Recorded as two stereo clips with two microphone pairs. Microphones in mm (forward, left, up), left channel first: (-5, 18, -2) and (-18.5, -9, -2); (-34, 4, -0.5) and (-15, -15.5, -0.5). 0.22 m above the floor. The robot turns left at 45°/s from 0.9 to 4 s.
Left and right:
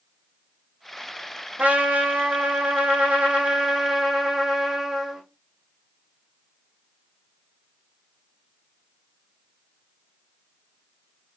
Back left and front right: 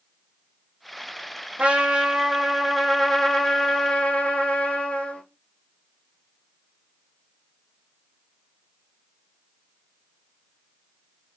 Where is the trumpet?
80° right, 3 m; by 5.2 s 170° left, 3 m.